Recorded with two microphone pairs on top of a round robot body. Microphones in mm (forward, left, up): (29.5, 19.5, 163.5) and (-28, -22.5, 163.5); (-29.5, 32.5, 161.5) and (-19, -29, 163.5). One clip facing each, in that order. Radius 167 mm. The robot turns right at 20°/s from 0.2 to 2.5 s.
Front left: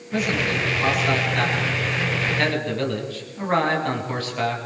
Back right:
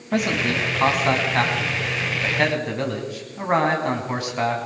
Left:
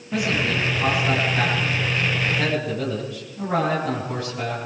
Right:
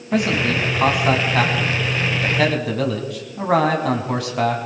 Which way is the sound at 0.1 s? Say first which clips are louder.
Back right 1 dB, right 4 dB; 120° right.